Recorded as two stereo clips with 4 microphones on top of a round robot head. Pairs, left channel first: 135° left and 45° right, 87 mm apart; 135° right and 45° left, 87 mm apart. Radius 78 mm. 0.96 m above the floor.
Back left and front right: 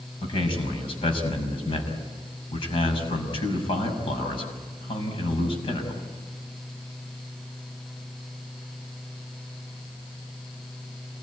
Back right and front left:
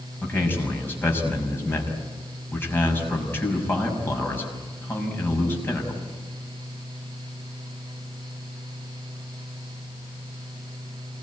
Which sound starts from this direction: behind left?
A man speaking, at 0.2 s.